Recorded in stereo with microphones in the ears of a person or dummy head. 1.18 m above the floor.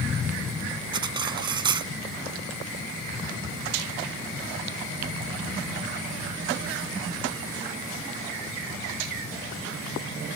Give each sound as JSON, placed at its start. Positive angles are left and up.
{"t": 0.9, "sound": "cutlery clinking", "side_deg": -30}